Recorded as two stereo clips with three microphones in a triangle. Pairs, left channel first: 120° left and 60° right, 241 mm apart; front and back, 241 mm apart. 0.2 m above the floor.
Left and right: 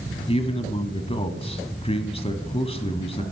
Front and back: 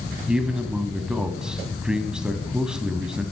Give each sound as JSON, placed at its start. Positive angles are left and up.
{"t": 0.3, "sound": "a man speaking", "azimuth_deg": 95, "distance_m": 1.1}